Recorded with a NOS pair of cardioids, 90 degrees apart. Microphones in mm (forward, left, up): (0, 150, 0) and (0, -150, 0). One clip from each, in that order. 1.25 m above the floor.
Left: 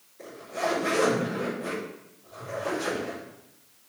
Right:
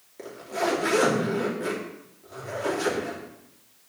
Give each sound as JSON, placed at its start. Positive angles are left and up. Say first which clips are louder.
{"t": 0.2, "sound": "a zipper", "louder": "right 2 dB", "azimuth_deg": -65, "distance_m": 3.5}